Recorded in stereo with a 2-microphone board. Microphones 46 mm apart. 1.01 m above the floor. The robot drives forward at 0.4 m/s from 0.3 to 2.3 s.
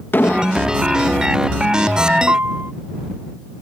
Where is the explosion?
55° left (ahead or behind); by 0.8 s 50° left (ahead or behind).